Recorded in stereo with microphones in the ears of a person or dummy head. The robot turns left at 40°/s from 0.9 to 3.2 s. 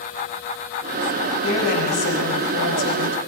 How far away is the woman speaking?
About 5.5 m.